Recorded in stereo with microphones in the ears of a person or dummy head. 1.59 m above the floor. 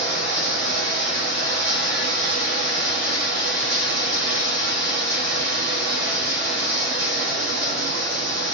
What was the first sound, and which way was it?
Running water, 70° right (ahead or behind).